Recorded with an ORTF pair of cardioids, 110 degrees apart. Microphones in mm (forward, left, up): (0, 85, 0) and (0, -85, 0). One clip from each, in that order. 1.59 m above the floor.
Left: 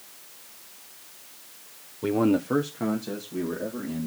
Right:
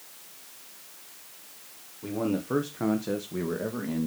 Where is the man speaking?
55° left, 1.1 m; by 4.1 s 40° right, 3 m.